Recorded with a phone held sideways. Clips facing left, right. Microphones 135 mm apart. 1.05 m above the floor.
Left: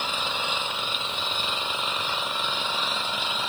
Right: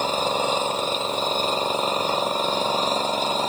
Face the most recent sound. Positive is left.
turn(degrees=-45)  # may be behind; listen again after turning